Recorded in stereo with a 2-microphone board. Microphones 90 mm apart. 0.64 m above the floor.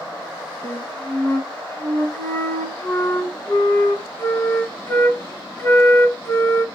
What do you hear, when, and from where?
0.6 s a flute: 30° left (ahead or behind), 2 m